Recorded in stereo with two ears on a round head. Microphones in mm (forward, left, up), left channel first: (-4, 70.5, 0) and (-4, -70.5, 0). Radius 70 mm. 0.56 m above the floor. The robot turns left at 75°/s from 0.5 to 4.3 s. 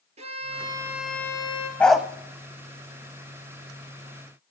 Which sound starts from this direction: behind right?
A violin, at 0.2 s.